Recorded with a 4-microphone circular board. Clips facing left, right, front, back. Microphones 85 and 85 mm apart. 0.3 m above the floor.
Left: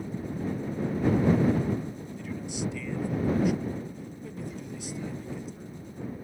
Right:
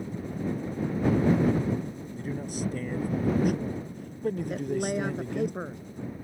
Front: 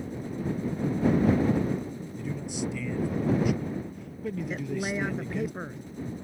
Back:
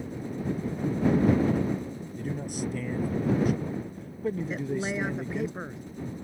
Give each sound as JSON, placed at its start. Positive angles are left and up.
{"t": 2.2, "sound": "a man speaking", "azimuth_deg": -140}
{"t": 4.5, "sound": "a woman speaking", "azimuth_deg": -90}